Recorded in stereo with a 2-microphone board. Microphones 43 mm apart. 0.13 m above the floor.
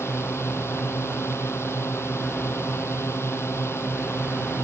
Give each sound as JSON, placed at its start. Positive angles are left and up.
{"t": 0.0, "sound": "a drone", "side_deg": 70}